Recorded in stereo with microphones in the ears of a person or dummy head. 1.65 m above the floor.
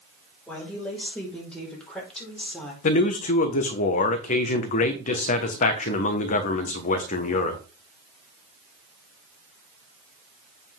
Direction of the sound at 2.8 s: 50° left (ahead or behind).